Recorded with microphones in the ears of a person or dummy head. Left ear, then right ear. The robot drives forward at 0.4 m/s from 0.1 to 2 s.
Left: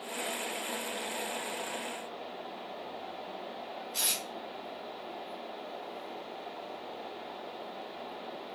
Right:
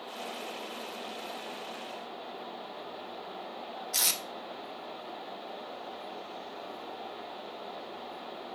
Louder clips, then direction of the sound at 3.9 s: Right 3 dB; 55° right (ahead or behind).